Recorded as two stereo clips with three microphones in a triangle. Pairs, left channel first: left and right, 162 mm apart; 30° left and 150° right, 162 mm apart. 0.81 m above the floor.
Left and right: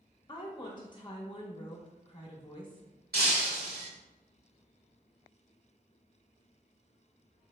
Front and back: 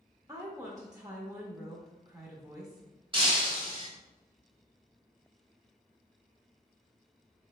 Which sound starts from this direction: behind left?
A woman speaking, at 0.3 s.